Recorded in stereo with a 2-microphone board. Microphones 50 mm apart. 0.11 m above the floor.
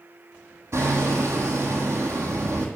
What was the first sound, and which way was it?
Hammering, 65° right (ahead or behind).